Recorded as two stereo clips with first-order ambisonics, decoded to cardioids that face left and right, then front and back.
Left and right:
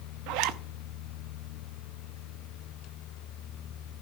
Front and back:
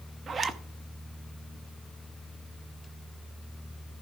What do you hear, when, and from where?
0.3 s a zipper: 115° right, 0.7 m